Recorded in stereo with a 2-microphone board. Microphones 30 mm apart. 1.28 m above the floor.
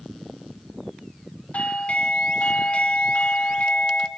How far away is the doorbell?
About 1.9 m.